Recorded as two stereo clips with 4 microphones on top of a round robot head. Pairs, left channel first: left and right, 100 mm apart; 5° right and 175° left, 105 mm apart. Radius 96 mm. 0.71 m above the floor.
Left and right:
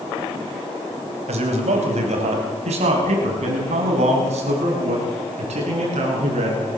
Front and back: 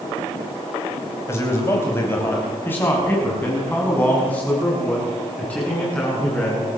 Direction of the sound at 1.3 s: 75° right.